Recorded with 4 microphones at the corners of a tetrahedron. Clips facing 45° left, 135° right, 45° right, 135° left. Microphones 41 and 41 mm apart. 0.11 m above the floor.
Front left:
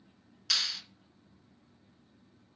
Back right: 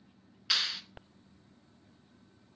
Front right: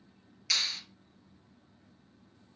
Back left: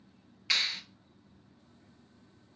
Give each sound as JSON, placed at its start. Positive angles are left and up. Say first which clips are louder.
{"t": 0.5, "sound": "a clap", "louder": "back right 1 dB, back left 2 dB", "azimuth_deg": 170, "distance_m": 1.0}